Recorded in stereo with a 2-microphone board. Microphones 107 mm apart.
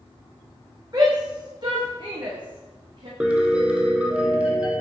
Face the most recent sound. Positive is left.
turn(degrees=-10)  # may be behind; listen again after turning